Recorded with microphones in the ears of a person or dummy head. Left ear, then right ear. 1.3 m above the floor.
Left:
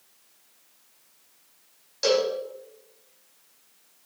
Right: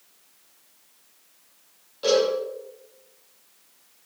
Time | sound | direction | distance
2.0 | a cowbell | 65° left (ahead or behind) | 5.5 m